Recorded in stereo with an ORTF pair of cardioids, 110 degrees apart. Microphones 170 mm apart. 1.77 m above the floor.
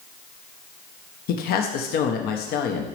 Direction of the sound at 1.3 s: 70° left.